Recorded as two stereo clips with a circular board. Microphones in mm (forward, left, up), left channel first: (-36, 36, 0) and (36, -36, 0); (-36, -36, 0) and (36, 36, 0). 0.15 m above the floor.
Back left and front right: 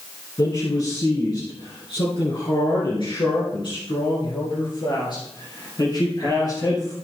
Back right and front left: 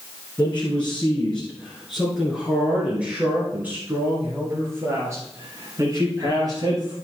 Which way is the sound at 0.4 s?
155° left.